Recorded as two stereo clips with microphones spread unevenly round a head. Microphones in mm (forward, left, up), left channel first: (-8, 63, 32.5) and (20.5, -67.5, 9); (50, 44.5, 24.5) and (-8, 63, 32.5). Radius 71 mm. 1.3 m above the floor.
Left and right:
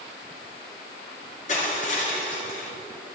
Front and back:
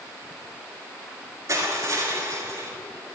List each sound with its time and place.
1.5 s crushing: 135° left, 4 m